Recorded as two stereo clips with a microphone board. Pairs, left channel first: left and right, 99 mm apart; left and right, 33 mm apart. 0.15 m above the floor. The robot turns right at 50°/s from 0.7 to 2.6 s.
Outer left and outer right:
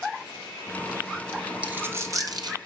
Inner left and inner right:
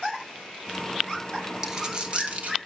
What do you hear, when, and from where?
1.6 s a dropped coin: 15° right (ahead or behind), 1.3 m; by 2.6 s 50° right (ahead or behind), 1.3 m